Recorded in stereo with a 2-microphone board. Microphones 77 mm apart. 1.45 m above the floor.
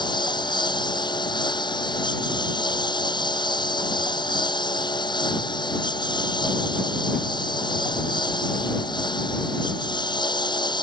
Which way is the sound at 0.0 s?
75° left (ahead or behind).